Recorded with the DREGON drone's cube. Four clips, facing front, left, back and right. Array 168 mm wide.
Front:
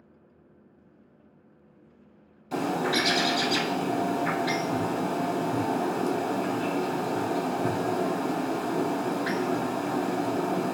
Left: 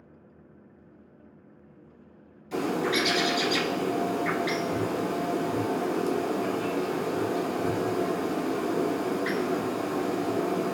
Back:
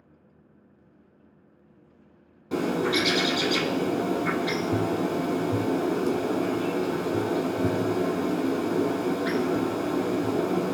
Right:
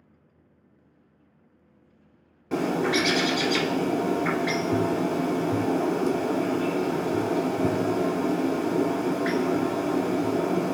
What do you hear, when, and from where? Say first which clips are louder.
2.5 s a bird: right 3 dB, back 2 dB; 120° right, 1.3 m